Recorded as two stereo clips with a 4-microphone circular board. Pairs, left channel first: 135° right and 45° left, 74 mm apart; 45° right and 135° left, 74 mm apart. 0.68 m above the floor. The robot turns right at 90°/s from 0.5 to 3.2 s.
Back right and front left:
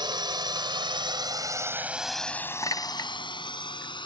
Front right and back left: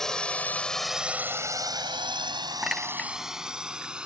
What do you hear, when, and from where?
0.0 s a drone: 40° left; by 4.1 s 145° right
2.6 s a clink: 155° right; by 3.1 s 110° right